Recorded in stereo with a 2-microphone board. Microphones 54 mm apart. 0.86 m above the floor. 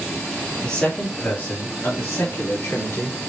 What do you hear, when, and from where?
0.6 s a man speaking: 15° left (ahead or behind), 1.7 m; by 3.2 s 60° left (ahead or behind), 2 m